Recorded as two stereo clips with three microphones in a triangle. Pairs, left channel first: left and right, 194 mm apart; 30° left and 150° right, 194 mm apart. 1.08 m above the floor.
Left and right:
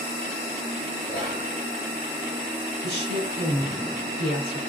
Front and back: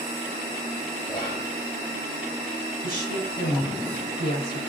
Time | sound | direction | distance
1.1 | whispering | 100° left | 4.5 m
2.8 | a woman speaking | 65° left | 7 m